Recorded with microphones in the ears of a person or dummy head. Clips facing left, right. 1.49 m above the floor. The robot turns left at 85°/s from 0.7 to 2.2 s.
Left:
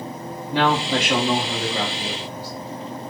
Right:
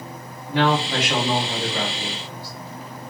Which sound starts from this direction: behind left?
A man speaking, at 0.5 s.